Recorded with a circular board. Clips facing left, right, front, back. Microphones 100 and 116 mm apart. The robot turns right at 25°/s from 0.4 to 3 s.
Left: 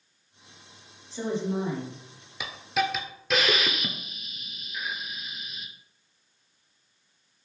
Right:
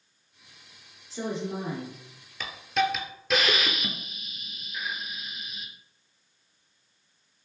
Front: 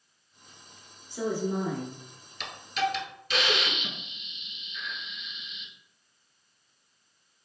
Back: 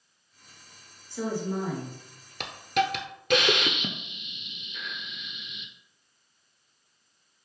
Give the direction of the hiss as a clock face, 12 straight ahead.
6 o'clock.